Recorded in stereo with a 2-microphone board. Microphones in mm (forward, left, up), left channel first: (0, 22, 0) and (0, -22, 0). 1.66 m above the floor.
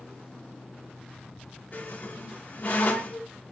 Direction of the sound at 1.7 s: 45° left (ahead or behind).